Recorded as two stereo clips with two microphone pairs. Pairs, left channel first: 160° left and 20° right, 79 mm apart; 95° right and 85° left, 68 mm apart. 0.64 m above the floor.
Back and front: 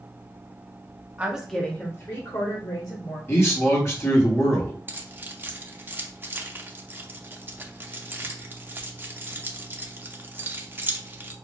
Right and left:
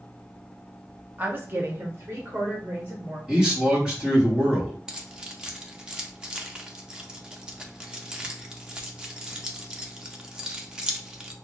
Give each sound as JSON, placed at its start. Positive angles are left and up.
{"t": 1.2, "sound": "a woman speaking", "azimuth_deg": 40, "distance_m": 0.8}
{"t": 3.3, "sound": "a man speaking", "azimuth_deg": 150, "distance_m": 1.4}
{"t": 4.9, "sound": "keys jangling", "azimuth_deg": 20, "distance_m": 0.5}